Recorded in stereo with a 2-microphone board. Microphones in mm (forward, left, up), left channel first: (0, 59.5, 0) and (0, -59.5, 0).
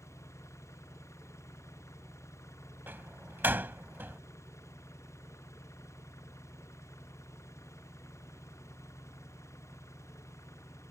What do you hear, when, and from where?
0.0 s an engine running: 25° left (ahead or behind)
2.9 s a door slam: 20° right (ahead or behind)